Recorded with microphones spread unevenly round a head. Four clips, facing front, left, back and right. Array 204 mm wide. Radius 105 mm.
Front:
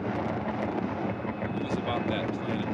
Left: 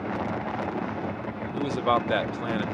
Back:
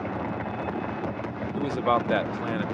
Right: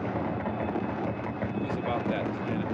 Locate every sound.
1.5 s a man speaking: 140° left